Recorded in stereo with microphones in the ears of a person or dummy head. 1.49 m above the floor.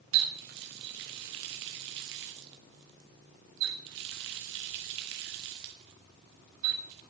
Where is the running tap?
50° right (ahead or behind), 1.0 m.